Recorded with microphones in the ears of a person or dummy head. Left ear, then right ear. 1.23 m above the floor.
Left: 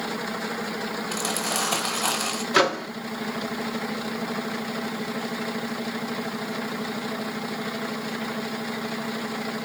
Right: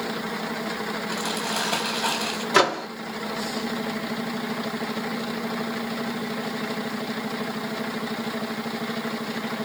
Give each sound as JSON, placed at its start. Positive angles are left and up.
{"t": 1.1, "sound": "crumpling", "side_deg": 65, "distance_m": 5.0}
{"t": 2.5, "sound": "a microwave", "side_deg": -5, "distance_m": 0.8}